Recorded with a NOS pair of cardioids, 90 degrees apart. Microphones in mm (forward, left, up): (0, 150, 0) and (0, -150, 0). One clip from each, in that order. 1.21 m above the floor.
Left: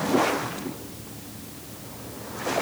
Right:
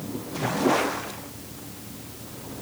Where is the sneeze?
I don't hear a sneeze.